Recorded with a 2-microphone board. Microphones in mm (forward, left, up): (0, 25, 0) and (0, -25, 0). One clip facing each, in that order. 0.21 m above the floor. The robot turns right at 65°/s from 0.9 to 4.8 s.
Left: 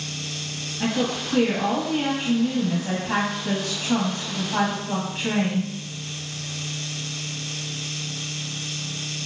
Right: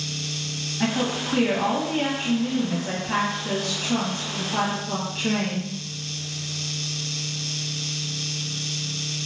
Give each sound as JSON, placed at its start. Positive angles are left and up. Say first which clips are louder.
{"t": 0.8, "sound": "a woman speaking", "louder": "even", "side_deg": -25, "distance_m": 1.0}